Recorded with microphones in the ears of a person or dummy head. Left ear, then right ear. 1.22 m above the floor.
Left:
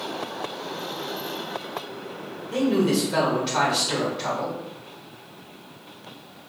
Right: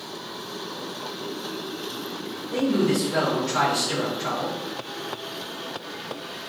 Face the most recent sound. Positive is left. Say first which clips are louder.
# left 1 dB
turn(degrees=35)  # may be behind; listen again after turning